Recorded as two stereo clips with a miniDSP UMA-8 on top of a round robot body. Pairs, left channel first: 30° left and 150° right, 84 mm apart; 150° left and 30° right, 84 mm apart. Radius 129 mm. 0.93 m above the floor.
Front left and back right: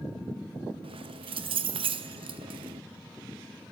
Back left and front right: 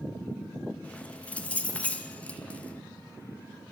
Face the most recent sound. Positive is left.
turn(degrees=-135)